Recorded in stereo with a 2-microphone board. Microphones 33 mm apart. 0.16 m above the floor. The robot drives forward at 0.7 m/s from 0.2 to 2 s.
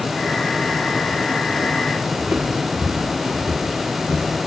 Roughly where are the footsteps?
Right.